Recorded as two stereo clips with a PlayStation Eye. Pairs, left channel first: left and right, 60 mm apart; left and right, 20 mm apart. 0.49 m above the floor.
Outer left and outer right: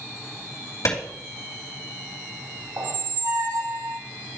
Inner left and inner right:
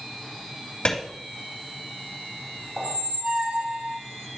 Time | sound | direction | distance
0.8 | a clap | 70° left (ahead or behind) | 3 m
2.8 | a squeak | 70° right (ahead or behind) | 0.8 m